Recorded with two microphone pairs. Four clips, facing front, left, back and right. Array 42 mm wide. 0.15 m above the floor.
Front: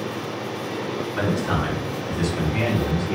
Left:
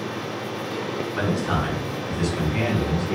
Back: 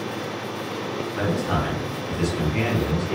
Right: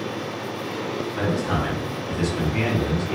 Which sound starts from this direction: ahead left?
A man speaking, at 1.2 s.